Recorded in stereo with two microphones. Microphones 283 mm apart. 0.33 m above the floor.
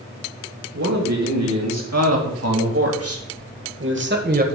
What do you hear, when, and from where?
0.7 s a man speaking: 65° right (ahead or behind), 3 m; by 4.5 s 30° right (ahead or behind), 1.3 m